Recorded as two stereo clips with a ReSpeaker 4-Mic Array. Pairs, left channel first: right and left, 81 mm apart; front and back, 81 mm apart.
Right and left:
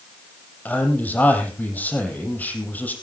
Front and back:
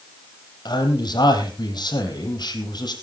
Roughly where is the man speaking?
Ahead.